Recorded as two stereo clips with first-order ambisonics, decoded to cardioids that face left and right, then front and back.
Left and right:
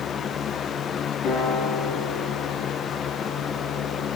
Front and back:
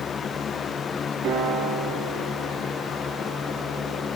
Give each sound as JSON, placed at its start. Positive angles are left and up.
{"t": 1.2, "sound": "a piano", "azimuth_deg": 125, "distance_m": 9.5}